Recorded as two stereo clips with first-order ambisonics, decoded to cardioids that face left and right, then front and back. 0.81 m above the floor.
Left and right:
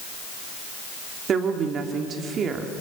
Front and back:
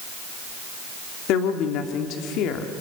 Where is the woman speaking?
30° right, 2 m.